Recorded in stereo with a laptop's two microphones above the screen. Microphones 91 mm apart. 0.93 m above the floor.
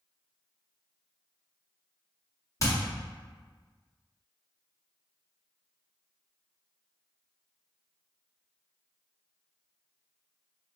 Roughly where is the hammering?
Left.